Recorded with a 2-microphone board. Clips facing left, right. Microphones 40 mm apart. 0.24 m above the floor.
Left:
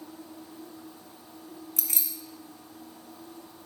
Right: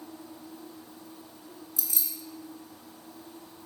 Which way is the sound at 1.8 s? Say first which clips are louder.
Even; 60° left (ahead or behind).